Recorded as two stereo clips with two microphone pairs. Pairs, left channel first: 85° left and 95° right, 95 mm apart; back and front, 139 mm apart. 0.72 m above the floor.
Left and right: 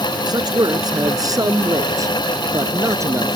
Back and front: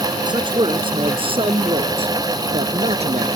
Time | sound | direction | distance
0.3 | a man speaking | 55° right | ?